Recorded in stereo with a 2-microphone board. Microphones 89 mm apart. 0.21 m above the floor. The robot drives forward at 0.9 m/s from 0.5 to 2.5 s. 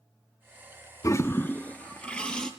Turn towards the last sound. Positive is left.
turn(degrees=10)  # may be behind; listen again after turning